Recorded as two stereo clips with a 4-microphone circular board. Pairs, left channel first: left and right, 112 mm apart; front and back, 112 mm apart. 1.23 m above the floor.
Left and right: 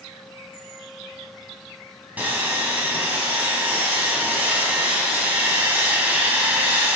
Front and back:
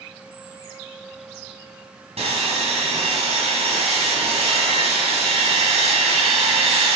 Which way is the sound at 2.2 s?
165° right.